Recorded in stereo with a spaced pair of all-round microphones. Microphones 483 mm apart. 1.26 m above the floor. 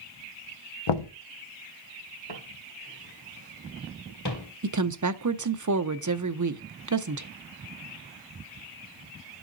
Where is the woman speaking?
40° right (ahead or behind), 0.5 m.